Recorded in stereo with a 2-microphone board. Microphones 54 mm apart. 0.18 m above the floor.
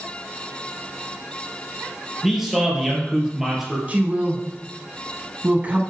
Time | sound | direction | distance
2.2 | a man speaking | 5° right (ahead or behind) | 3.5 m
3.9 | a woman speaking | 30° right (ahead or behind) | 1.1 m